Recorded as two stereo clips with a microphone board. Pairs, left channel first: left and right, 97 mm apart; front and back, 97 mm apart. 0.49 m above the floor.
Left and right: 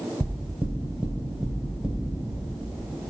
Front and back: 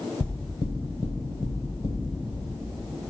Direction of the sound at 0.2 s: 15° right.